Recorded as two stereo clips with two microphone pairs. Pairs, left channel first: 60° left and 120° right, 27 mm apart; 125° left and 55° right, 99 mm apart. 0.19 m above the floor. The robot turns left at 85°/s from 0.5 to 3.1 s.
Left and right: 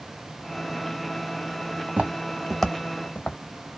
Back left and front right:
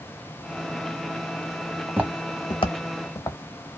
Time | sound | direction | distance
1.9 | footsteps | 110° right | 0.8 m